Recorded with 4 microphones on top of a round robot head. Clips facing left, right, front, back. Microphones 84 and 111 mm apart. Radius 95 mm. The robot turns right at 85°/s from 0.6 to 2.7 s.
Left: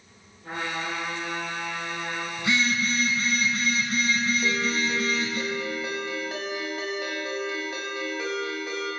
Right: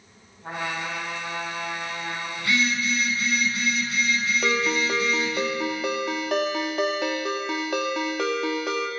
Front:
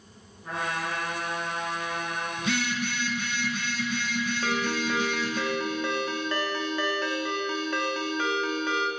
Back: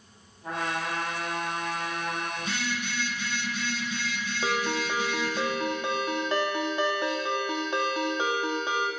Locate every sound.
0.4 s a trumpet: 130° right, 4 m; by 2.3 s 10° left, 4 m
2.4 s a phone buzzing: 15° left, 1.7 m; by 5.4 s 40° left, 1.7 m
4.4 s a ringtone: 105° right, 0.8 m